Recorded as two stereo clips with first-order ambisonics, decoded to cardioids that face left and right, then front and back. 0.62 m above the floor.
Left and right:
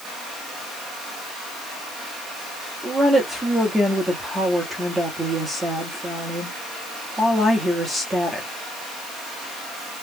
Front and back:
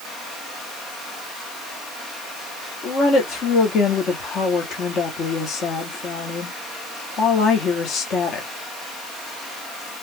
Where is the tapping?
I don't hear tapping.